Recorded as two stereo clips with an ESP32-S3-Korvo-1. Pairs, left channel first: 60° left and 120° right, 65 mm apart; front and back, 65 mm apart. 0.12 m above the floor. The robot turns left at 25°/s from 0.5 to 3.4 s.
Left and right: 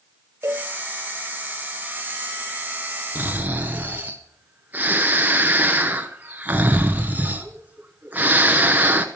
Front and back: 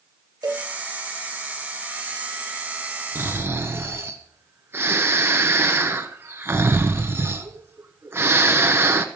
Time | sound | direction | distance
0.4 | a cowbell | 165° right | 1.4 m
3.1 | snoring | 160° right | 1.1 m